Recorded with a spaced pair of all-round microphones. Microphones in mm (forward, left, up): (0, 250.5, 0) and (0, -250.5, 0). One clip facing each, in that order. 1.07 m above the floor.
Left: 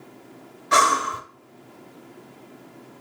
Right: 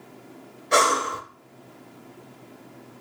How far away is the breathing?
About 0.9 m.